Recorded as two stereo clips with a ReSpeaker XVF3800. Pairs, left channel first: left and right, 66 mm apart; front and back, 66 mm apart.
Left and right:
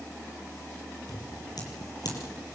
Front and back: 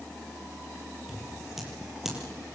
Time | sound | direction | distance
1.1 | scissors | 95° left | 5.5 m